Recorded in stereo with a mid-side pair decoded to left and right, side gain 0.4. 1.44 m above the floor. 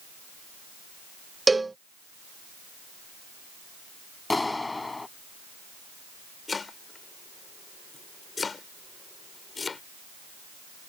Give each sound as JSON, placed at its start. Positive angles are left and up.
{"t": 1.5, "sound": "a cowbell", "azimuth_deg": -20}
{"t": 4.3, "sound": "a clap", "azimuth_deg": 20}
{"t": 6.5, "sound": "chopping", "azimuth_deg": 35}